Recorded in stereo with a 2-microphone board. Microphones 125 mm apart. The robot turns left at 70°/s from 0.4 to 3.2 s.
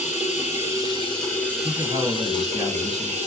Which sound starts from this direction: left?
Running water, at 0.0 s.